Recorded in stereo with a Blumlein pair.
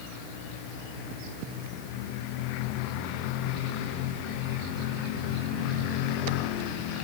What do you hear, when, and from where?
Only background noise.